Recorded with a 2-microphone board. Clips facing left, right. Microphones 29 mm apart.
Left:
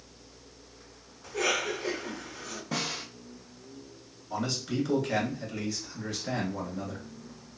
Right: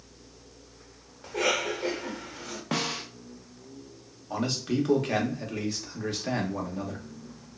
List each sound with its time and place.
1.2 s a cough: 60° right (ahead or behind), 1.7 m
2.7 s a snare drum: 75° right (ahead or behind), 0.7 m
4.3 s a man speaking: 70° right (ahead or behind), 1.2 m